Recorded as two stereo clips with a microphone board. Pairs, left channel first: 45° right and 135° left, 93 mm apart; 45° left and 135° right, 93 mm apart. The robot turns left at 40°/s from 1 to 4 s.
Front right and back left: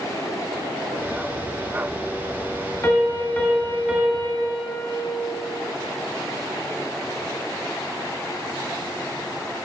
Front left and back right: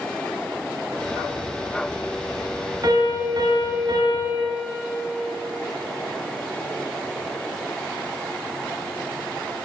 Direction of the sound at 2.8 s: 90° right.